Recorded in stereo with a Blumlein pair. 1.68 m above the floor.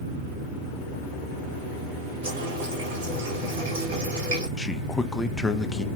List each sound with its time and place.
2.2 s a running tap: 55° right, 2.0 m
4.6 s a man speaking: 10° left, 0.5 m